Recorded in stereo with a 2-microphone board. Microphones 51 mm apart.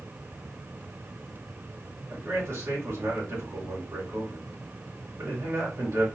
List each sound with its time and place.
2.1 s a man speaking: 60° right (ahead or behind), 2.5 m